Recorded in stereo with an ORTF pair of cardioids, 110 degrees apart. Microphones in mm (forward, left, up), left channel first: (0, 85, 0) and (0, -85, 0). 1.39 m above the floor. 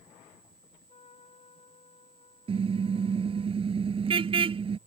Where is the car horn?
30° right.